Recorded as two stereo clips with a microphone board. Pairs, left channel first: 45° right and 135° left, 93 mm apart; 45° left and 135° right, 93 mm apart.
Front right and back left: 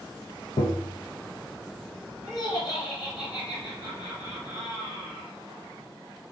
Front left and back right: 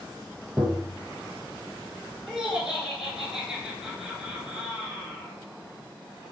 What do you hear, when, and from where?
0.6 s tapping: 65° right, 0.5 m
2.3 s laughter: 55° right, 1.7 m